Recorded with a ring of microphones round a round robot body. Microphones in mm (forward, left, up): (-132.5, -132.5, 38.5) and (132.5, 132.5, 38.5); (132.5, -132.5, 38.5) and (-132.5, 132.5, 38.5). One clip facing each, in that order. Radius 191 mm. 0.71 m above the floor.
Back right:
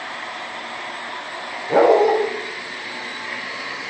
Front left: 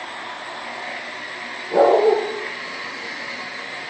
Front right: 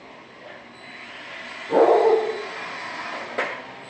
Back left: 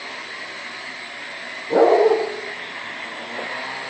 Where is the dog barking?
125° right, 9.5 m.